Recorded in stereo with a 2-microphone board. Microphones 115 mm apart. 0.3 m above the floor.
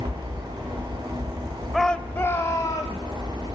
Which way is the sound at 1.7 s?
Centre (ahead or behind).